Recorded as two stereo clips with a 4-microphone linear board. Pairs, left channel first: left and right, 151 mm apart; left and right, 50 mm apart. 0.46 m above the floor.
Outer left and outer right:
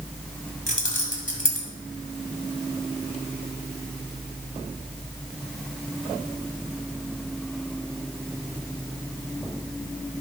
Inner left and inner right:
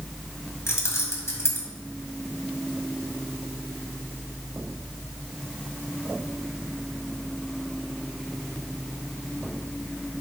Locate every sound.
0.7 s keys jangling: 60° left (ahead or behind), 1.7 m